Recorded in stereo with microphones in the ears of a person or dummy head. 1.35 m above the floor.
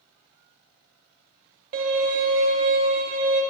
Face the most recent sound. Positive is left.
turn(degrees=-25)  # may be behind; listen again after turning